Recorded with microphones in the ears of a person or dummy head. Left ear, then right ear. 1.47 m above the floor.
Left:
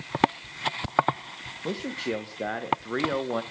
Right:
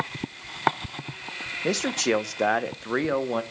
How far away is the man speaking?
About 1.1 m.